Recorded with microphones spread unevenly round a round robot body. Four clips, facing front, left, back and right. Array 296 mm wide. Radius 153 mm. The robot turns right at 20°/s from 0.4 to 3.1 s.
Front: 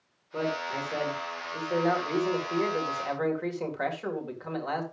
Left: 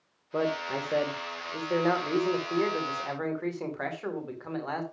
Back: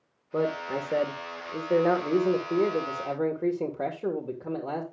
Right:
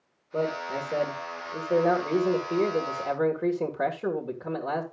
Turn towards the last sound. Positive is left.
turn(degrees=-135)